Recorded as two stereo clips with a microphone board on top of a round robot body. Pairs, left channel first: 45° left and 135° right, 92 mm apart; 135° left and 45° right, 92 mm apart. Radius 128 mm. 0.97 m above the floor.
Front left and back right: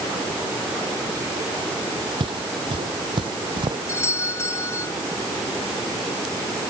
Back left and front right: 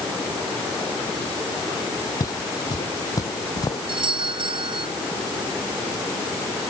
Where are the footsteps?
175° right; by 3.8 s 170° right.